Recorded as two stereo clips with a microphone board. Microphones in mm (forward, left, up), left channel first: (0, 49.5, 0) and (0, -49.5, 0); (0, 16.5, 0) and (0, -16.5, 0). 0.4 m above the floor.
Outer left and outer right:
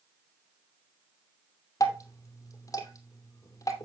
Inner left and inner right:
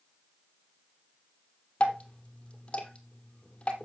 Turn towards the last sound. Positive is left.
turn(degrees=35)  # may be behind; listen again after turning